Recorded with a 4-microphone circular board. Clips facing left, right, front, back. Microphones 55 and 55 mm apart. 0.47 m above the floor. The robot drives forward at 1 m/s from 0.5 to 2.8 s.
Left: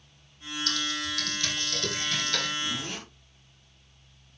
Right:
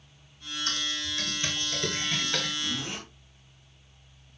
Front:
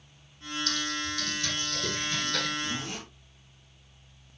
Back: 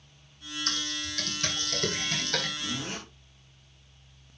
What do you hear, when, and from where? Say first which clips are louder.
0.7 s typing on a keyboard: left 2 dB, front 2 dB; 145° right, 1.9 m; by 2.5 s 165° right, 3.5 m
2.6 s a zipper: even, front 1 dB; 165° right, 6 m